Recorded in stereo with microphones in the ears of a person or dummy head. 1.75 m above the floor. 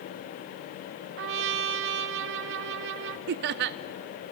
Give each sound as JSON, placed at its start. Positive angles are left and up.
{"t": 1.2, "sound": "a trumpet", "side_deg": -65, "distance_m": 0.9}
{"t": 3.3, "sound": "laughter", "side_deg": -55, "distance_m": 0.6}